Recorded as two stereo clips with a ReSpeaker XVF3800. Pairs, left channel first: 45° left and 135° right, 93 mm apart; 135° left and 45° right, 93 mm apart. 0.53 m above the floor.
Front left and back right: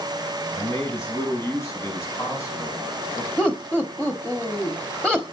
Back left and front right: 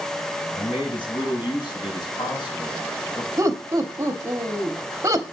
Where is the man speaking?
100° left, 5 m; by 3.3 s 105° left, 7 m.